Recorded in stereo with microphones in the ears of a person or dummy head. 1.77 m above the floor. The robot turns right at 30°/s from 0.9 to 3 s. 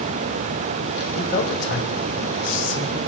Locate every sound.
1.2 s a man speaking: 105° left, 3.5 m; by 3.0 s 160° left, 3.5 m